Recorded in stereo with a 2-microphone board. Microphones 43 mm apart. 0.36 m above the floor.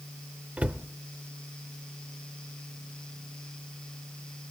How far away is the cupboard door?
About 0.5 m.